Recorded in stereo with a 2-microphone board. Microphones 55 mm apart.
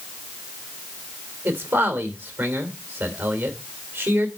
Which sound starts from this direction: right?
A man speaking, at 1.4 s.